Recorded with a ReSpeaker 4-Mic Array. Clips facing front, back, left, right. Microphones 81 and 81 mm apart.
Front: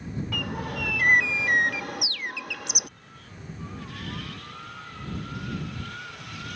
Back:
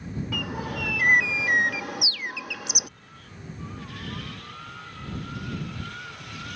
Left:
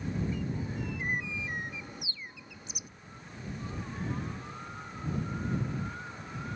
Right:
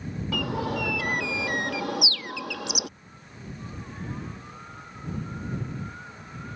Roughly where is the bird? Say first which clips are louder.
Back 1 dB, right 8 dB; right.